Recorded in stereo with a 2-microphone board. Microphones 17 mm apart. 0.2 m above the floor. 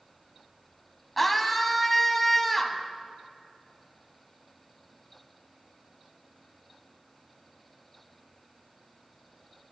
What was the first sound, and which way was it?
A scream, 10° left (ahead or behind).